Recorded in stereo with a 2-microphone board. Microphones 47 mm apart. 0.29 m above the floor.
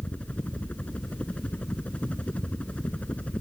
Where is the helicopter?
30° left (ahead or behind).